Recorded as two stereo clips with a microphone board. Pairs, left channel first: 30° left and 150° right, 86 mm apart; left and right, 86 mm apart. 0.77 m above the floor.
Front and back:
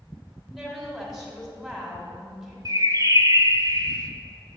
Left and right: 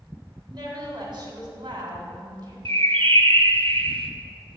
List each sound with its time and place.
0.5 s a woman speaking: 60° right, 1.8 m
2.6 s a bird: 100° right, 0.5 m